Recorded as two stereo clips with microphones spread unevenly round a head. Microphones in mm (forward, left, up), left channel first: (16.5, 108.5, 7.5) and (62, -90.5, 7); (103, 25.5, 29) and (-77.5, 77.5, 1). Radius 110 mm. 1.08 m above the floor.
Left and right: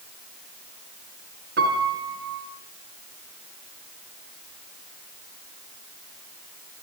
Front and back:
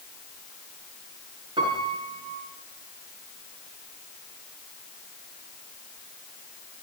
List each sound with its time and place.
1.6 s a piano: 125° right, 5.5 m